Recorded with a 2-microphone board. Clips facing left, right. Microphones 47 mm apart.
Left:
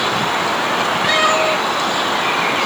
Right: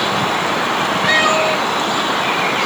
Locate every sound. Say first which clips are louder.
1.0 s a cat meowing: right 1 dB; 10° left (ahead or behind), 8 m